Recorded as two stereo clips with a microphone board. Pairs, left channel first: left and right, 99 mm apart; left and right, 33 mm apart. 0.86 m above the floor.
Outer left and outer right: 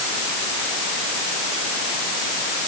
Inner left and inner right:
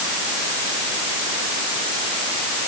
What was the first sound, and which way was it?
Only background noise.